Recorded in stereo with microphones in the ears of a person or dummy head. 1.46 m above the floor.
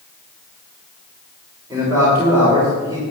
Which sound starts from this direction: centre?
A man speaking, at 1.7 s.